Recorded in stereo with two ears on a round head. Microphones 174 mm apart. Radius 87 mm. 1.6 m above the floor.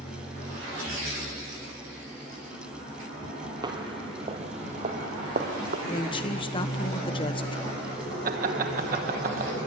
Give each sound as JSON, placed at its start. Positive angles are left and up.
{"t": 3.6, "sound": "footsteps", "side_deg": -25, "distance_m": 1.9}
{"t": 5.9, "sound": "a woman speaking", "side_deg": 25, "distance_m": 1.5}
{"t": 8.2, "sound": "laughter", "side_deg": -45, "distance_m": 1.2}